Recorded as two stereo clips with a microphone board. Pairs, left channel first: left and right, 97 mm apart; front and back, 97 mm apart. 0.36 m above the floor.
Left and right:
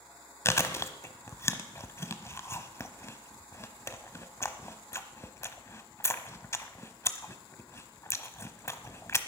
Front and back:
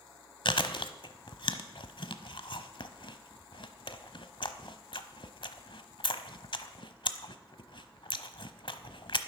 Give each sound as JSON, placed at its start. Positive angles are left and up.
{"t": 0.5, "sound": "chewing", "azimuth_deg": 30, "distance_m": 1.0}